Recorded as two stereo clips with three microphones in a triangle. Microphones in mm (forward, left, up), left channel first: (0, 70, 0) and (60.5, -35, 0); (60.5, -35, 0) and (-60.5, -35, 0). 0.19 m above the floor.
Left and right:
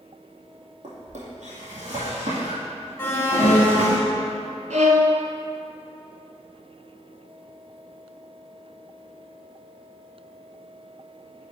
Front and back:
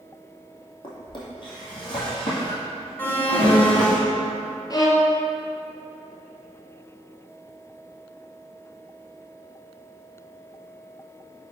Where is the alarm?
65° left, 0.8 m.